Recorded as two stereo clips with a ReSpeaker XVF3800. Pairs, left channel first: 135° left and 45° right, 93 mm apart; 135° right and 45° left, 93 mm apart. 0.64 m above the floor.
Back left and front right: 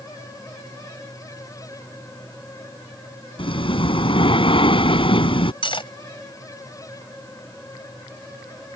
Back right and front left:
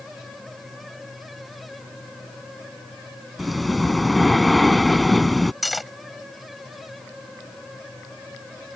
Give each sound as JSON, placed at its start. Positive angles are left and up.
{"t": 3.4, "sound": "breathing", "azimuth_deg": 135}
{"t": 5.6, "sound": "cutlery clinking", "azimuth_deg": 135}